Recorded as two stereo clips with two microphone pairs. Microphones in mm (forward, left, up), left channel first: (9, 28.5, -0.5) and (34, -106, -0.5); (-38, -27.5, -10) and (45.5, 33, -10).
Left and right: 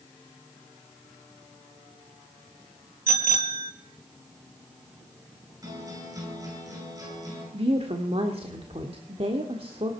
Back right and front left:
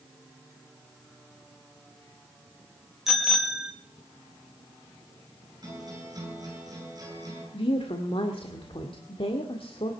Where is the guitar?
15° right, 10 m.